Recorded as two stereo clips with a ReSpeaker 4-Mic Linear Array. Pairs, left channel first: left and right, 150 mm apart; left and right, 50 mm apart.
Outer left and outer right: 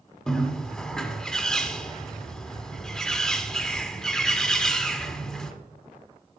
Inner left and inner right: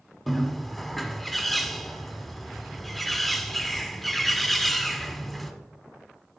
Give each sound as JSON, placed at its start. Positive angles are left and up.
{"t": 0.3, "sound": "a bird", "side_deg": 5, "distance_m": 1.6}